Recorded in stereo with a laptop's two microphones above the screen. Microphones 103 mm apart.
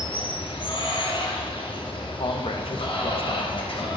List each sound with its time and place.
0.0 s running water: 55° left (ahead or behind), 0.8 m
2.2 s a man speaking: 60° left (ahead or behind), 0.7 m